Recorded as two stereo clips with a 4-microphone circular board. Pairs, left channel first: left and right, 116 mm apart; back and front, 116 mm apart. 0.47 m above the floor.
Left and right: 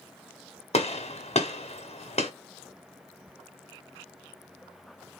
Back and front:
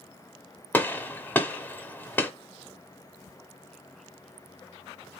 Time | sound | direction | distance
0.7 | a gunshot | 105° left | 1.4 m